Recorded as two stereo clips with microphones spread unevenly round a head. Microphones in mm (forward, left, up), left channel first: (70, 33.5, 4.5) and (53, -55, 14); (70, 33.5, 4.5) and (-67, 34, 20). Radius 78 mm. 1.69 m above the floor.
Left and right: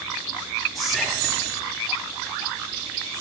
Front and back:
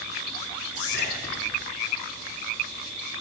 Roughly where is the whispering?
Ahead.